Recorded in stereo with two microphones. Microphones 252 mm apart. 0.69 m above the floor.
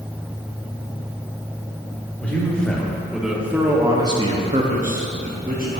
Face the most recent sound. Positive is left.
turn(degrees=-35)  # may be behind; listen again after turning